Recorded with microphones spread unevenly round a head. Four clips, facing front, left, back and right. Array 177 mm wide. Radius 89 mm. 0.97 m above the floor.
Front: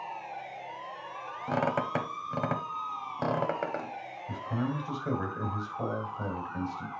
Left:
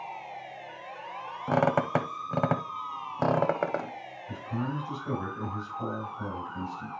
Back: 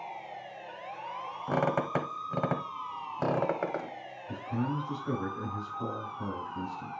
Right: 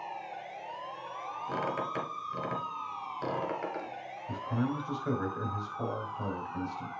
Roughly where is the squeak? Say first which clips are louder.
Left 10 dB, even; left.